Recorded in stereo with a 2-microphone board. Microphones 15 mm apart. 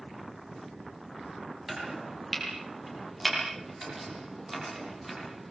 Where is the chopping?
5° right (ahead or behind), 9 m.